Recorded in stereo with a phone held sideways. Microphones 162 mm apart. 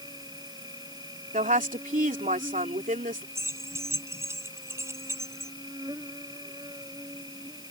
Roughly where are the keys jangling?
Centre.